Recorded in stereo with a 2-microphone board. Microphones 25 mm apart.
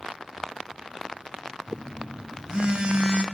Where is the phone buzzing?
40° right (ahead or behind), 2 m.